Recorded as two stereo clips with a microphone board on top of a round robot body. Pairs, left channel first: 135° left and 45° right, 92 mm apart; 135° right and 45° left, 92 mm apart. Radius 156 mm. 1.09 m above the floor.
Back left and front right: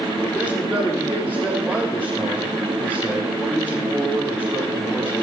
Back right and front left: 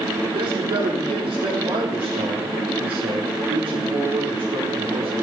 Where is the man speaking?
55° left, 4 m.